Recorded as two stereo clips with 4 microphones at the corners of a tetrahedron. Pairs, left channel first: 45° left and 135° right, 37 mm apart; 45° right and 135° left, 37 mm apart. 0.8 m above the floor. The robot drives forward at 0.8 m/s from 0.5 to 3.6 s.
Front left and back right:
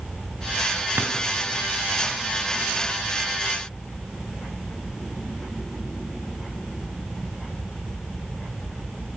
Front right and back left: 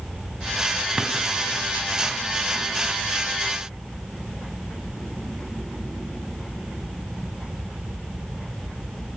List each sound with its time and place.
1.0 s a drawer: 160° right, 2 m